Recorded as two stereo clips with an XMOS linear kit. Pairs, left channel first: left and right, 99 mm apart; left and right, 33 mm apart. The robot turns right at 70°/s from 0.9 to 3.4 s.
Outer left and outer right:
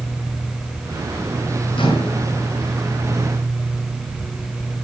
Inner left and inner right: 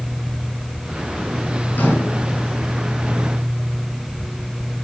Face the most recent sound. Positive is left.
turn(degrees=175)